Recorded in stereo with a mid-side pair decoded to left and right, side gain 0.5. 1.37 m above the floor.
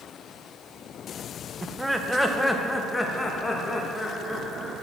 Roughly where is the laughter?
Ahead.